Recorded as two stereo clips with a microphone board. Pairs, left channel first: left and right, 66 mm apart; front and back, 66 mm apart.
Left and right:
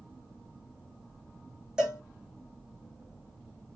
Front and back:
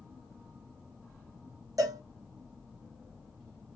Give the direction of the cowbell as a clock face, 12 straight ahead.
6 o'clock.